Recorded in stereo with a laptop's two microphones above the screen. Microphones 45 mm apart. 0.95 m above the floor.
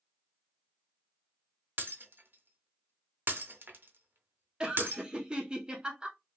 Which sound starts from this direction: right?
Breaking glass, at 1.8 s.